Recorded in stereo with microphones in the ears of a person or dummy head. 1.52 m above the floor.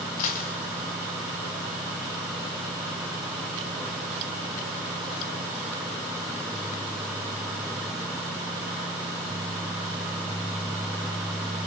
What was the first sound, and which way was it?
A dropped coin, 40° left (ahead or behind).